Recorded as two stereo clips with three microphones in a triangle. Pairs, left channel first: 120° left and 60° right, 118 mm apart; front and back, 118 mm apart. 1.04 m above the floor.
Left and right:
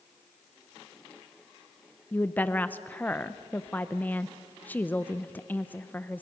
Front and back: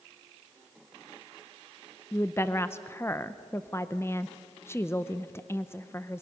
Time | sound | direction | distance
2.1 | a woman speaking | 55° left | 0.7 m